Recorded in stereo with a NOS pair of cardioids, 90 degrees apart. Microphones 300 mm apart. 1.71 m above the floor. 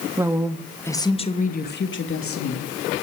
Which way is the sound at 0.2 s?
10° right.